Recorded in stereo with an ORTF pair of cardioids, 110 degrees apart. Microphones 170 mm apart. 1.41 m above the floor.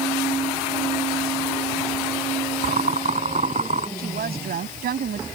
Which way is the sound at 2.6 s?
45° right.